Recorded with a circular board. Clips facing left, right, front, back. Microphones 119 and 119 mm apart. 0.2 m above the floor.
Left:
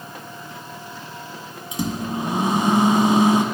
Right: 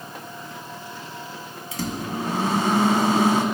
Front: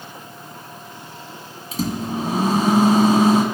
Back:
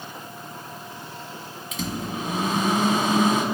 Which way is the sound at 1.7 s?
25° left.